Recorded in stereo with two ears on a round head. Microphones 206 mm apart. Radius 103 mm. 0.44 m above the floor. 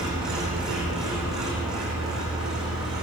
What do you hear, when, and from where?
0.0 s an engine running: 5° right (ahead or behind), 5.5 m